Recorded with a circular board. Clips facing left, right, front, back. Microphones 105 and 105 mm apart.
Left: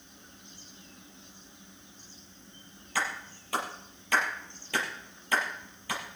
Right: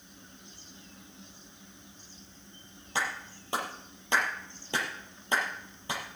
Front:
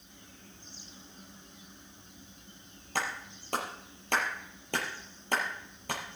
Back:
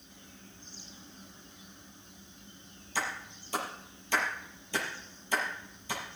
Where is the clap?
25° right, 4.5 m.